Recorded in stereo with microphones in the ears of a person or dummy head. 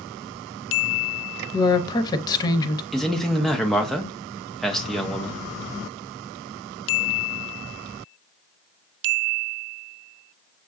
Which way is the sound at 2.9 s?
Centre (ahead or behind).